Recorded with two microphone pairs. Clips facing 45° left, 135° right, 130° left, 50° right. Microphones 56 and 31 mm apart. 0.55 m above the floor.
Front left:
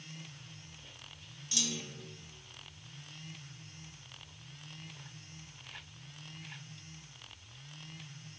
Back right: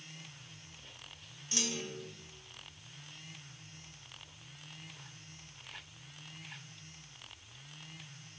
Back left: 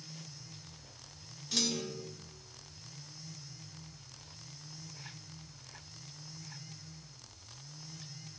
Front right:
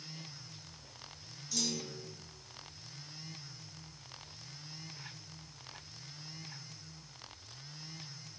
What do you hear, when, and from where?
1.5 s a clunk: 165° left, 0.7 m